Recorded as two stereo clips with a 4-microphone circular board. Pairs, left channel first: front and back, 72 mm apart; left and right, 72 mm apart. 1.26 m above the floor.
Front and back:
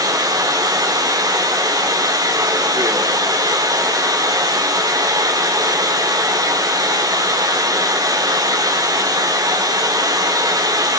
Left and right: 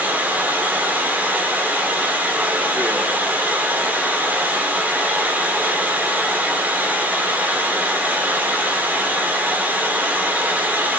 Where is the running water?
160° right, 2 m.